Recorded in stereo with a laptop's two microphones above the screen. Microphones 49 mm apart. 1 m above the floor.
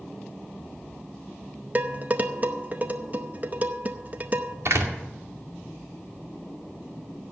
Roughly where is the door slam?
Right.